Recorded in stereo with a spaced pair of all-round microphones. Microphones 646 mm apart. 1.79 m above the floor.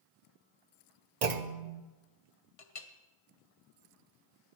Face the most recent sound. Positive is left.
turn(degrees=60)  # may be behind; listen again after turning